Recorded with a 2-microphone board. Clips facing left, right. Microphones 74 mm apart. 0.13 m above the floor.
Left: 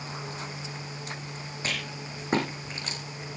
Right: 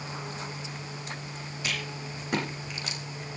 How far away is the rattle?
About 6.5 m.